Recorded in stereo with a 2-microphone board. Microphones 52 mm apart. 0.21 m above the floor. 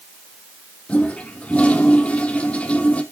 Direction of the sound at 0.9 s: 30° left (ahead or behind).